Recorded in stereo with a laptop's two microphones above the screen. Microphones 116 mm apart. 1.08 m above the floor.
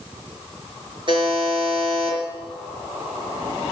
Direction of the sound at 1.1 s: 45° right (ahead or behind).